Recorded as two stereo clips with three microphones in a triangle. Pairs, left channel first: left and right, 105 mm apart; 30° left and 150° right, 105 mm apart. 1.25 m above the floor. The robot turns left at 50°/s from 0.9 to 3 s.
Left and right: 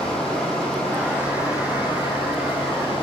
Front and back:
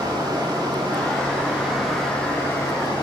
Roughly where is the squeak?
I don't hear a squeak.